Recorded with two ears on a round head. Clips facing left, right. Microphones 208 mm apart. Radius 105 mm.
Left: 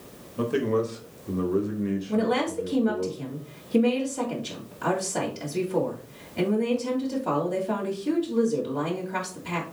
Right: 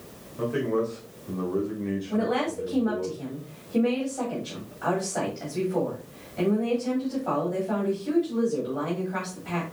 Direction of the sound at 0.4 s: 50° left (ahead or behind).